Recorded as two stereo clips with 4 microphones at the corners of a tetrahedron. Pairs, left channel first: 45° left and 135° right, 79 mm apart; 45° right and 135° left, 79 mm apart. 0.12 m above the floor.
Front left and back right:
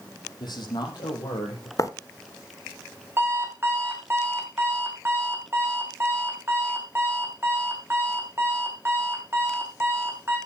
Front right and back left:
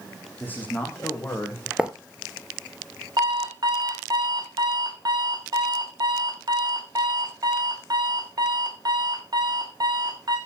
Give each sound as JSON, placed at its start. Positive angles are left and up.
{"t": 0.4, "sound": "a man speaking", "azimuth_deg": 20, "distance_m": 6.0}
{"t": 1.8, "sound": "writing", "azimuth_deg": 60, "distance_m": 1.1}
{"t": 3.2, "sound": "an alarm clock", "azimuth_deg": 165, "distance_m": 4.0}